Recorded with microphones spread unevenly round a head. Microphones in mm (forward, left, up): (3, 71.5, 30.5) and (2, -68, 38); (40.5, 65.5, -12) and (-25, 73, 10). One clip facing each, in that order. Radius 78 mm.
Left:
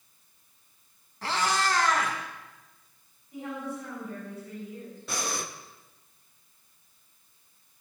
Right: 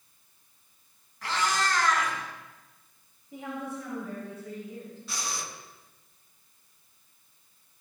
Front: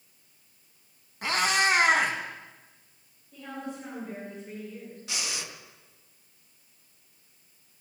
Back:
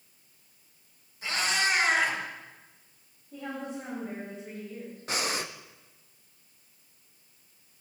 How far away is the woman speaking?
About 6.5 m.